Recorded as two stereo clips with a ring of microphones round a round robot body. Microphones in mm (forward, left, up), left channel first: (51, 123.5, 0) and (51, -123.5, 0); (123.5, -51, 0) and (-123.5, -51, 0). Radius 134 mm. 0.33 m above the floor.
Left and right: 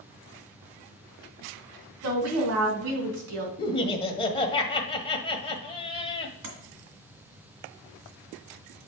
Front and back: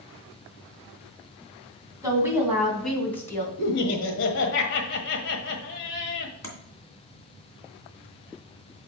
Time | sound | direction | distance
2.0 | a woman speaking | 105° right | 3 m
3.6 | laughter | 25° left | 1.4 m
6.4 | tapping | 80° right | 2.5 m